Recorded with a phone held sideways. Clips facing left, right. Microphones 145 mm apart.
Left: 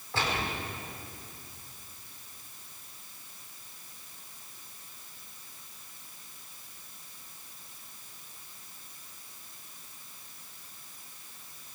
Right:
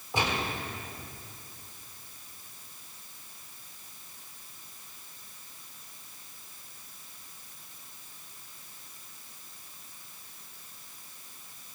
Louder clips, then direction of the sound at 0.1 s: Right 2 dB; 15° right (ahead or behind).